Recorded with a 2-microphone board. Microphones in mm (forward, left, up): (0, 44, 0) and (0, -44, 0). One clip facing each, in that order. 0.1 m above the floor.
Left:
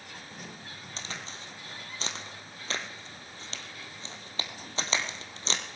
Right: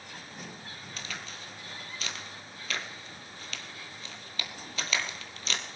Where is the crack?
30° left (ahead or behind), 1.5 m.